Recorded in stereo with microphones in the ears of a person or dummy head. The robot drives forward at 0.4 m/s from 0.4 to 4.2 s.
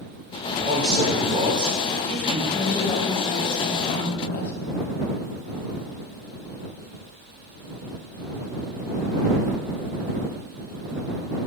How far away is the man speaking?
About 2 m.